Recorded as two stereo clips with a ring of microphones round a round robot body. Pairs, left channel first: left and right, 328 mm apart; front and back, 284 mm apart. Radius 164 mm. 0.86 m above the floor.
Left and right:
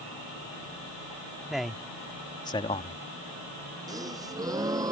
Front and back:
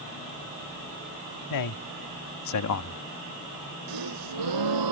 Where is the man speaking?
Straight ahead; by 3.0 s 25° left.